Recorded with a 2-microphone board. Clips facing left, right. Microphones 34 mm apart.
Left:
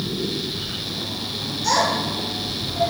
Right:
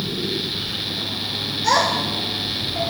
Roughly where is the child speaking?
Right.